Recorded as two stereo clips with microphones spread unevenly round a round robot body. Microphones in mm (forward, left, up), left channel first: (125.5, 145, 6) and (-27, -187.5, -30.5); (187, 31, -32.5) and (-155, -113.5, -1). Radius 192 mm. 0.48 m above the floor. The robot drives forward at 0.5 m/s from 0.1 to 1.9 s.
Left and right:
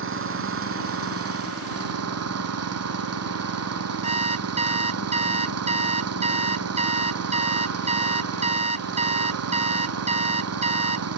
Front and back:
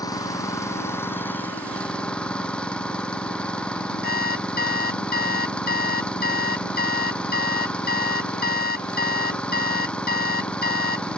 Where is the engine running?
60° right; by 11.2 s 65° right.